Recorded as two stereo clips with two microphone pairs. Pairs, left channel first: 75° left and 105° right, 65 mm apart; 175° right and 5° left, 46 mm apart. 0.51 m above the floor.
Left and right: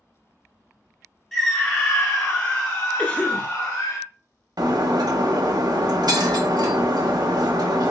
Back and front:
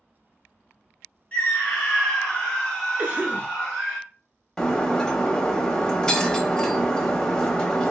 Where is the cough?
30° left, 0.9 m.